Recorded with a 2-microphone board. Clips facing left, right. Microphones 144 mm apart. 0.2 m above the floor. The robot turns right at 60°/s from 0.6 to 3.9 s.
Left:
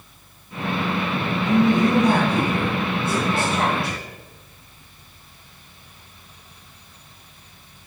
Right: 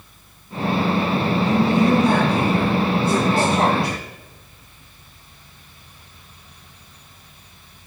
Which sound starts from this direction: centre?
A man speaking, at 1.4 s.